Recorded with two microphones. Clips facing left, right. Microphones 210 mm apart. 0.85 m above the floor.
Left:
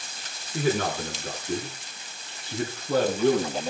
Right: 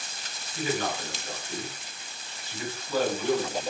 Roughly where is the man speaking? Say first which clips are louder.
Left 4 dB; left.